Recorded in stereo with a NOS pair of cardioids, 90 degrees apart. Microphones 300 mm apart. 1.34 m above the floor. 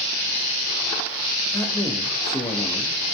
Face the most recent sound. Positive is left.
turn(degrees=10)